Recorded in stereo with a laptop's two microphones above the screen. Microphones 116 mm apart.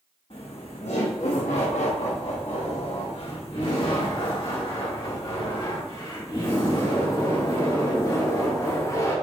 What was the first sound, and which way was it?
Laughter, 55° left (ahead or behind).